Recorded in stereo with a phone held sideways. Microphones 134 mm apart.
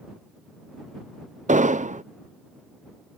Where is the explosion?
65° right (ahead or behind).